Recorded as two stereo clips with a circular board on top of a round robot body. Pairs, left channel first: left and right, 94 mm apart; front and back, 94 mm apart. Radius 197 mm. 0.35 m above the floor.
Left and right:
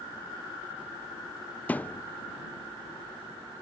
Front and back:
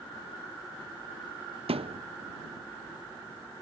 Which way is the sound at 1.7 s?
165° left.